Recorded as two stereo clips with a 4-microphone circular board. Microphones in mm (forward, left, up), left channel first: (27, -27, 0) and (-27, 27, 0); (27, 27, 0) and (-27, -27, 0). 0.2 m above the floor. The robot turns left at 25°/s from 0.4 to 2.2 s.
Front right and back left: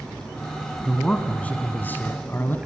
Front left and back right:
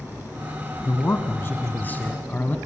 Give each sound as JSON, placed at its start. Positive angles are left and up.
{"t": 0.8, "sound": "a man speaking", "azimuth_deg": 25, "distance_m": 1.3}